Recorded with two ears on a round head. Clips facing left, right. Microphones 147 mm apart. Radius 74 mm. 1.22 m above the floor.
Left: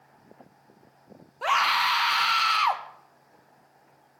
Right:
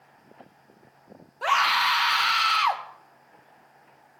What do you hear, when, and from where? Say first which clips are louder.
1.4 s a scream: right 1 dB; centre (ahead or behind), 1.5 m